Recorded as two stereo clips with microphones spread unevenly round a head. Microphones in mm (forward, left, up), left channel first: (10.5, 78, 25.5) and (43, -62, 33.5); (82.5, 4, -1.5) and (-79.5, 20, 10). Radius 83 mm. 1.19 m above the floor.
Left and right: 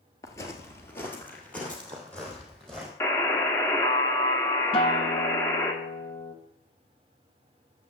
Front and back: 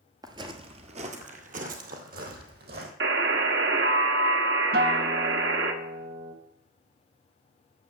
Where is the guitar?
150° left, 1.3 m.